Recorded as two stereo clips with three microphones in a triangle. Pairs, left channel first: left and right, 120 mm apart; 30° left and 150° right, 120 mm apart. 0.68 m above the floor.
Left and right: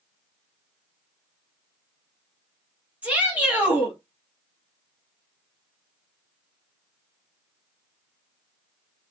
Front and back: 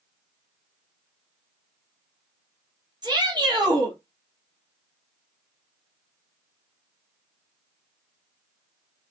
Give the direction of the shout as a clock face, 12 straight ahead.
5 o'clock.